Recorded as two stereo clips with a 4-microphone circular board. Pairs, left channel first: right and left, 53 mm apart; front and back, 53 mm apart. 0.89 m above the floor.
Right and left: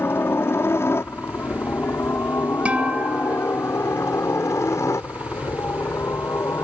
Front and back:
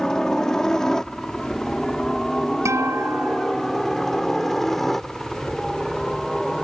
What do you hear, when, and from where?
0.0 s a helicopter: 75° right; by 6.6 s 85° right
2.6 s a guitar: 155° left